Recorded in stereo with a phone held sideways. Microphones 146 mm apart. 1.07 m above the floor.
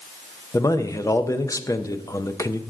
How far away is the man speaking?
About 0.6 m.